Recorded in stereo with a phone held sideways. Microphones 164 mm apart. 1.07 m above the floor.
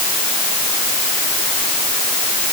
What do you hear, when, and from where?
Only background noise.